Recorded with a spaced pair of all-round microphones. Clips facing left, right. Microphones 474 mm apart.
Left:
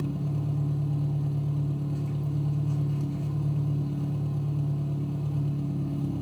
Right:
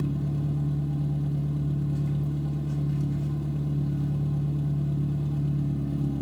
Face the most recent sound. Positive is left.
turn(degrees=-40)  # may be behind; listen again after turning